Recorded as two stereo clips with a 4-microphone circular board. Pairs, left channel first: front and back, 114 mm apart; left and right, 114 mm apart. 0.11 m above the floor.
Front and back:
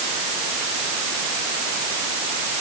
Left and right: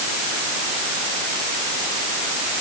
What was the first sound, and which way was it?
Only background noise.